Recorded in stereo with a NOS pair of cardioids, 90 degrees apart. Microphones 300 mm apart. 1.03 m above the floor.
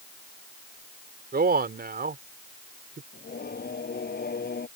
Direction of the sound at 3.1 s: 30° left.